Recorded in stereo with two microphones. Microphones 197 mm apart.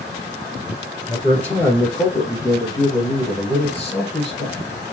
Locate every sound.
1.1 s a man speaking: 5° left (ahead or behind), 3.5 m; by 4.6 s 40° left (ahead or behind), 3 m